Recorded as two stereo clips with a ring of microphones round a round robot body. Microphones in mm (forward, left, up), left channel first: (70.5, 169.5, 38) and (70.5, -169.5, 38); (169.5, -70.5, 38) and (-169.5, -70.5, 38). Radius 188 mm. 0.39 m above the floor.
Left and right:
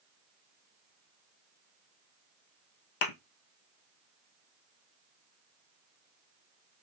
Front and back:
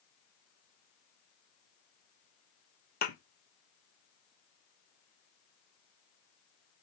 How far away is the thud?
About 1.0 m.